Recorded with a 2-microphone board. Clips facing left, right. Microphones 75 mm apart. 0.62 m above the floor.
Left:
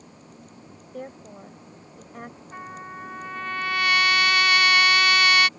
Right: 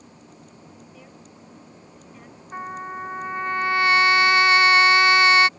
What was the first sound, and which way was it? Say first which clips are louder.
A woman speaking: left 8 dB; 55° left (ahead or behind).